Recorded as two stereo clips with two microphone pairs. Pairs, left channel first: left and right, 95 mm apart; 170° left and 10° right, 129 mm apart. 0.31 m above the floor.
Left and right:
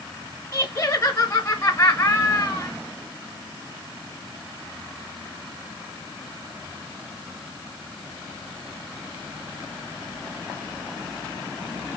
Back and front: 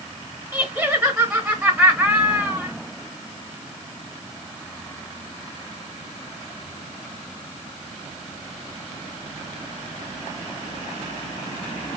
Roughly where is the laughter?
Ahead left.